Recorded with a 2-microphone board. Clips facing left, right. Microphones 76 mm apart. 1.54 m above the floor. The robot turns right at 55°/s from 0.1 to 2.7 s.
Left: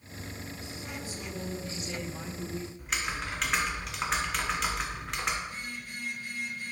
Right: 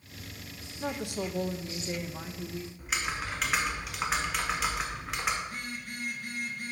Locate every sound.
0.8 s a woman speaking: 85° right, 0.6 m; by 2.7 s 20° left, 0.6 m
2.8 s typing on a keyboard: 5° right (ahead or behind), 1.1 m
5.4 s a phone buzzing: 50° right (ahead or behind), 1.3 m